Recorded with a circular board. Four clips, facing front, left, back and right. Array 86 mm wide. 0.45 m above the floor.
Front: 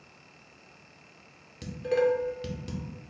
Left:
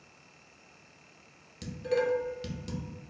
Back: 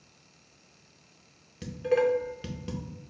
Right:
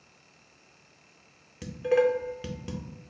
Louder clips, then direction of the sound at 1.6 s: Right 6 dB, back 1 dB; 115° right.